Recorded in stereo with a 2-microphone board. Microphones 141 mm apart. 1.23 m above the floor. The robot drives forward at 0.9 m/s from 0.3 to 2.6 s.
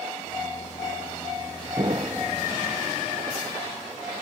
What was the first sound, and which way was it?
An explosion, 40° right (ahead or behind).